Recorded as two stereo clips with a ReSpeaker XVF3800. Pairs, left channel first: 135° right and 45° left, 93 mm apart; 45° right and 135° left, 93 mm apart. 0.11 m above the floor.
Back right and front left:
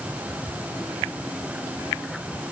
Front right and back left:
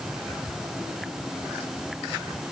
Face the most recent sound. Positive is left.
No sound to turn to.